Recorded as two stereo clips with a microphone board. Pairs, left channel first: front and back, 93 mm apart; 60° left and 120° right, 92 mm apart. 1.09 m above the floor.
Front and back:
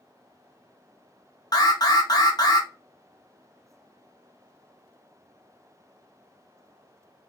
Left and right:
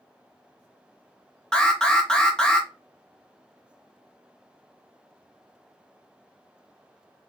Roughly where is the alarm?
Ahead.